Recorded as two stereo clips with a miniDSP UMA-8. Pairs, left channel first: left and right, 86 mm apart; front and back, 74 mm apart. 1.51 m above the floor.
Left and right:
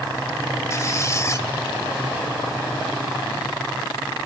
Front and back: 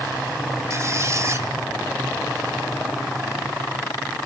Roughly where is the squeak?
Behind left.